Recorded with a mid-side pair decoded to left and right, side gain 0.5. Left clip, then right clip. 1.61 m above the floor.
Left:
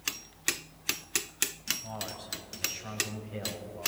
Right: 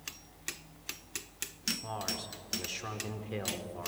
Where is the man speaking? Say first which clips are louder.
Right 2 dB; 60° right, 4.5 m.